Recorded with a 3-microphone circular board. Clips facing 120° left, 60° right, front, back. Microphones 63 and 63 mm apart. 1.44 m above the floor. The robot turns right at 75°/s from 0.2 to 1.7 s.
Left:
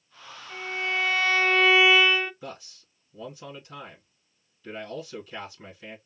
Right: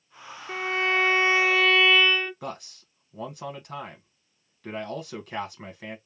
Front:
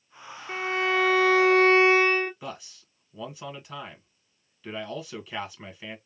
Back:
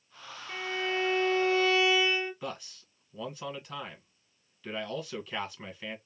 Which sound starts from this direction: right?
A man speaking, at 2.4 s.